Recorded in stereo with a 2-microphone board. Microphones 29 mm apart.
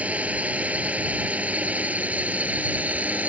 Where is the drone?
55° right (ahead or behind); by 3.3 s 60° right (ahead or behind).